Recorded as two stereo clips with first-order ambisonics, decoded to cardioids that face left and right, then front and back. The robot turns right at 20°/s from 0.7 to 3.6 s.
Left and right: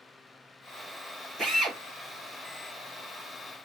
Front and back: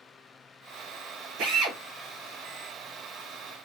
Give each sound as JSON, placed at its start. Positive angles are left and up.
{"t": 1.4, "sound": "a drill", "azimuth_deg": -170, "distance_m": 1.3}